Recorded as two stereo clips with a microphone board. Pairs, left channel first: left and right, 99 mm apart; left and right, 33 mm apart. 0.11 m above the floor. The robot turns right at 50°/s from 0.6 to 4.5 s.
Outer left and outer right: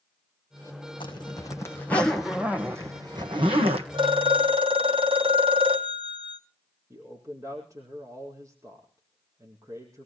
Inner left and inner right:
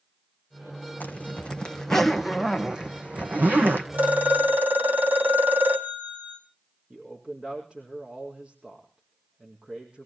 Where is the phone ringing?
55° right (ahead or behind), 2 m; by 6.4 s 75° right (ahead or behind), 2 m.